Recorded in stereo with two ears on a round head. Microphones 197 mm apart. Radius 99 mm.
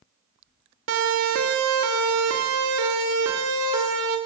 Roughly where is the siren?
Right.